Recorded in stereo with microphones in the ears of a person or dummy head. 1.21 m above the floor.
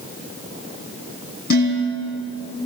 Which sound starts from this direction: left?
Dishes clattering, at 1.5 s.